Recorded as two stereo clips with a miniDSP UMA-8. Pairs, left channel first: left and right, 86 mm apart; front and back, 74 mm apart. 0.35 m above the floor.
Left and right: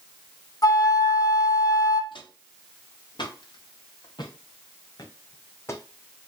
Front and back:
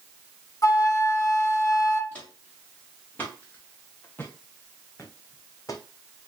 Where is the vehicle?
No vehicle in this recording.